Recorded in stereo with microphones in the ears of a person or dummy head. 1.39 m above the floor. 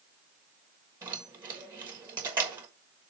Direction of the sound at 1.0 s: 20° right (ahead or behind).